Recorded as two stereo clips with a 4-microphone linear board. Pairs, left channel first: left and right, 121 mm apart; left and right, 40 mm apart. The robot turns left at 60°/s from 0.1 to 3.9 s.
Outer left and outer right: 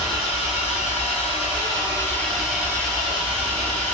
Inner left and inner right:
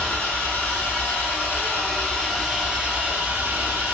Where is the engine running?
140° left, 1.5 m; by 3.9 s 90° right, 1.5 m.